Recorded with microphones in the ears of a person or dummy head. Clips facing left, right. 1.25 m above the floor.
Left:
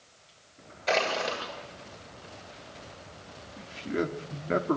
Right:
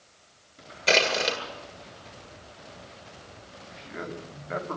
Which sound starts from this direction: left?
A man speaking, at 3.6 s.